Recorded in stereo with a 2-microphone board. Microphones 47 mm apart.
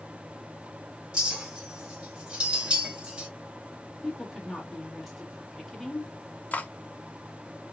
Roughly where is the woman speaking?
Centre.